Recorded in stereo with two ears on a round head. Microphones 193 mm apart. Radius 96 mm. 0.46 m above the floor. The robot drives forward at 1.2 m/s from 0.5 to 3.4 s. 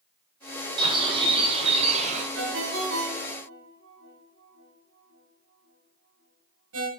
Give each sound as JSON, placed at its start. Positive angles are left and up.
{"t": 0.8, "sound": "a bird", "side_deg": -20, "distance_m": 4.0}
{"t": 2.4, "sound": "a ringtone", "side_deg": -60, "distance_m": 5.0}